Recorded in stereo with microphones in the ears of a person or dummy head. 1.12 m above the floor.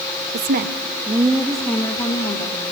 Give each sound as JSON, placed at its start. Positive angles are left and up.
{"t": 0.3, "sound": "a woman speaking", "side_deg": -60, "distance_m": 1.6}